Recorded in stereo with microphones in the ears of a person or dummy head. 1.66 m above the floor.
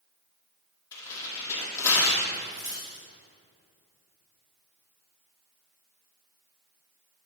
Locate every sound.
0.9 s tearing paper: 15° left (ahead or behind), 2.0 m
2.3 s a dropped coin: 20° right (ahead or behind), 1.3 m